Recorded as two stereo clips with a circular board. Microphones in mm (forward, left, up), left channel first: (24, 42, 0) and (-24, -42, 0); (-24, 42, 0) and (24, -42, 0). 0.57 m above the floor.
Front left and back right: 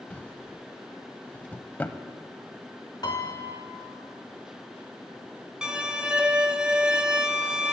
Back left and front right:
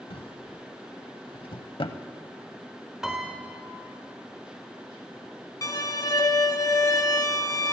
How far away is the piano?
About 1.6 m.